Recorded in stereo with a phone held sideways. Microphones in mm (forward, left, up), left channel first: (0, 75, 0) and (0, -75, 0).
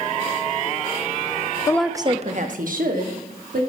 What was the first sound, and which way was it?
A woman speaking, 25° left (ahead or behind).